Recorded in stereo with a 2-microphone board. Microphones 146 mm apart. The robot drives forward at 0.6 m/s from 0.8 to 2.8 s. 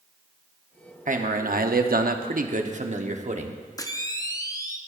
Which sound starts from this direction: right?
A man speaking, at 1.1 s.